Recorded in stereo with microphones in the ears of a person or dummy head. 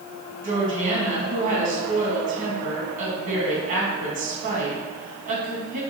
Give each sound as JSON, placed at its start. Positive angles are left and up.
{"t": 0.4, "sound": "a woman speaking", "side_deg": -45, "distance_m": 2.5}